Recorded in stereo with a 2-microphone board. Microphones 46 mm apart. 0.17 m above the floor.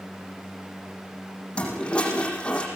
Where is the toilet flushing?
20° left (ahead or behind), 8 m.